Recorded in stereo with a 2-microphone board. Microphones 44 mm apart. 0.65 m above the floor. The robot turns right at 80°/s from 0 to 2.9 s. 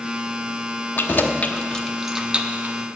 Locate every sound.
1.0 s keys jangling: 50° left (ahead or behind), 0.7 m; by 2.8 s 45° right (ahead or behind), 0.7 m